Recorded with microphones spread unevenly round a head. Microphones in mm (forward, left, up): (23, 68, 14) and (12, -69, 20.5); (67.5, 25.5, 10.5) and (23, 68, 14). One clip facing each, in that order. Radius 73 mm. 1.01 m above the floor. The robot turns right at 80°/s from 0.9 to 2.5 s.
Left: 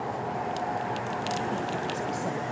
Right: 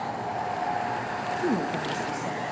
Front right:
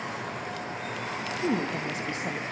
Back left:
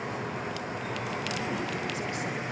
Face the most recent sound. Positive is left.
turn(degrees=30)